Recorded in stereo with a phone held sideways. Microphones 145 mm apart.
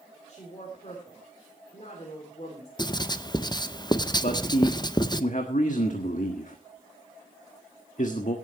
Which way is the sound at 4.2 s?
60° left (ahead or behind).